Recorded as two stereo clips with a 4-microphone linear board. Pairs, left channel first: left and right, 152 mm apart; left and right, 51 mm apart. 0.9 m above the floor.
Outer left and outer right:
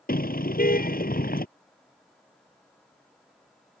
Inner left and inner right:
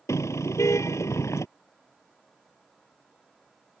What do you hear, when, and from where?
0.1 s a car horn: 80° left